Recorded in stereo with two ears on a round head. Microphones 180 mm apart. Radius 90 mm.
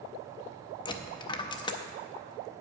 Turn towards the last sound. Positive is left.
turn(degrees=20)  # may be behind; listen again after turning